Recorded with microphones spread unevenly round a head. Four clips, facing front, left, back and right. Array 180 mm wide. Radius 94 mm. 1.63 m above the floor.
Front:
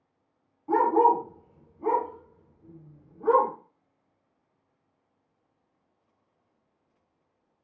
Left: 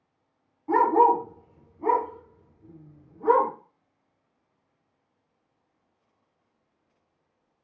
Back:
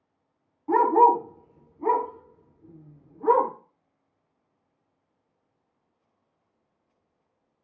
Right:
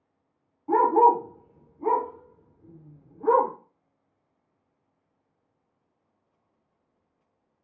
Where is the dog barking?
Straight behind, 1.9 m.